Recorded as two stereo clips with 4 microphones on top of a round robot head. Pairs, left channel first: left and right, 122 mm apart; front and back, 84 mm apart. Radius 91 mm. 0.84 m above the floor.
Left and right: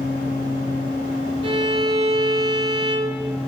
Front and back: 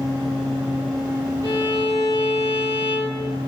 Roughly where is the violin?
Ahead right.